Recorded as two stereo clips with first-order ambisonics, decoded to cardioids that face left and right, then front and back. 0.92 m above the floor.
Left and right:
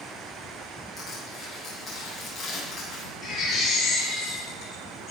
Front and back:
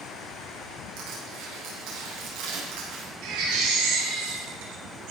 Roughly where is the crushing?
Behind.